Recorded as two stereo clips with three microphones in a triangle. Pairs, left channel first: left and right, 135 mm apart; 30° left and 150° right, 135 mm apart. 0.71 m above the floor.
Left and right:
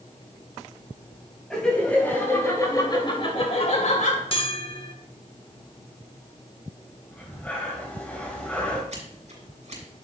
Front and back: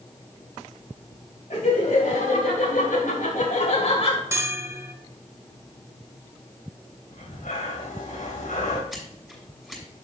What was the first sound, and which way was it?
Laughter, 5° left.